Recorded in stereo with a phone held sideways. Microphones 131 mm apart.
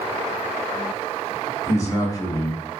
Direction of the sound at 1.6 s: 25° left (ahead or behind).